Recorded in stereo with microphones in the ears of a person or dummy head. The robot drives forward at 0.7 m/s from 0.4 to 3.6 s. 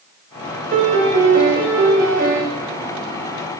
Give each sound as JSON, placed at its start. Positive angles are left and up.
{"t": 0.7, "sound": "a piano", "side_deg": -40, "distance_m": 0.7}